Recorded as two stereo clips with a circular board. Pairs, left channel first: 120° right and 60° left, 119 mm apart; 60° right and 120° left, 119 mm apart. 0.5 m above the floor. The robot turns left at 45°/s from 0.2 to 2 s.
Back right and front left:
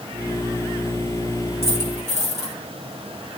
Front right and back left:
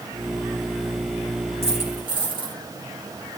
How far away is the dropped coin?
About 7 m.